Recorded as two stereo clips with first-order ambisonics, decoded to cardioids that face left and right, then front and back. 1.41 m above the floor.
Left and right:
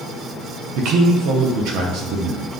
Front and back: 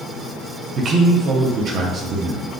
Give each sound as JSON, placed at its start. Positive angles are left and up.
{"t": 0.8, "sound": "a man speaking", "azimuth_deg": -120, "distance_m": 0.6}